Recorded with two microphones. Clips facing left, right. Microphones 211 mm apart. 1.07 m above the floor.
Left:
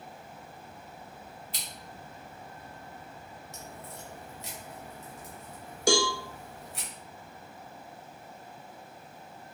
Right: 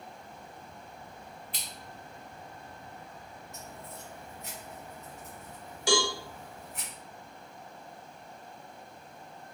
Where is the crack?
70° left (ahead or behind), 1.4 m.